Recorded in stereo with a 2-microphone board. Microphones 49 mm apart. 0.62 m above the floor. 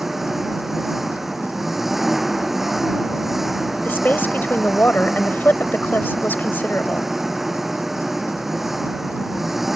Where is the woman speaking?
40° left (ahead or behind).